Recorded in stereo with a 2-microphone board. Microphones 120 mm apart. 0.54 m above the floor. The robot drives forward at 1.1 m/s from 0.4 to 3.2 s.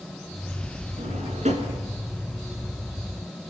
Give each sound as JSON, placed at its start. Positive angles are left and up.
{"t": 1.0, "sound": "a drawer", "side_deg": -80, "distance_m": 4.0}